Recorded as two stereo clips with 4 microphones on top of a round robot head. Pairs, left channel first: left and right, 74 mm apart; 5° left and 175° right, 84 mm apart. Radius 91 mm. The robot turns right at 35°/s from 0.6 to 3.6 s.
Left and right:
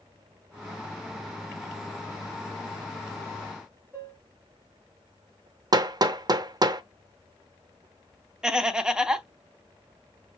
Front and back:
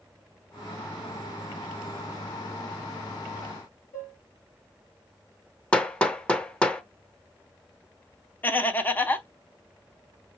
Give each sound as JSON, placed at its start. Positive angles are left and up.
{"t": 3.9, "sound": "dishes clattering", "azimuth_deg": -30, "distance_m": 3.0}
{"t": 5.7, "sound": "hammering", "azimuth_deg": -75, "distance_m": 0.7}
{"t": 8.4, "sound": "laughter", "azimuth_deg": -20, "distance_m": 0.8}